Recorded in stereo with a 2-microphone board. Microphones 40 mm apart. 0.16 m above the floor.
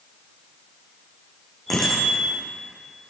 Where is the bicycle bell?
10° left (ahead or behind), 6 m.